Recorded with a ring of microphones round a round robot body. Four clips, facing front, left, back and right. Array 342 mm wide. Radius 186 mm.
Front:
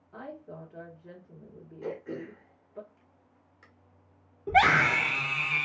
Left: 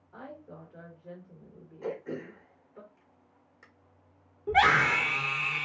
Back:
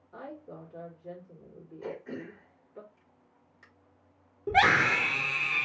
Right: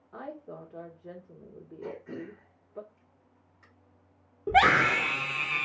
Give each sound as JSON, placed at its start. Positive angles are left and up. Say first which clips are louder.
{"t": 0.1, "sound": "a woman speaking", "louder": "right 4 dB, front 1 dB", "azimuth_deg": -80, "distance_m": 1.3}
{"t": 1.8, "sound": "throat clearing", "louder": "left 3 dB, front 2 dB", "azimuth_deg": 75, "distance_m": 1.6}
{"t": 4.5, "sound": "a scream", "louder": "right 1 dB, front 1 dB", "azimuth_deg": -100, "distance_m": 1.8}